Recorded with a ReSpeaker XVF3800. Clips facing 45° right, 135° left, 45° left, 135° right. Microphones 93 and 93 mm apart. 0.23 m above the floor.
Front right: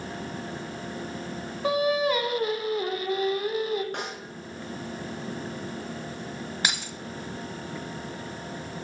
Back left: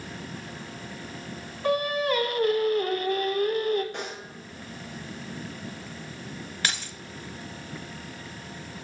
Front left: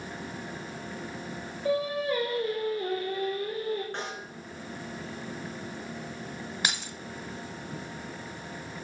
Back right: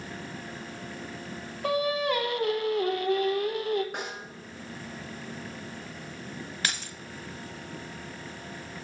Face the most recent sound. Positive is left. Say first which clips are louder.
# even, front left 1 dB
turn(degrees=0)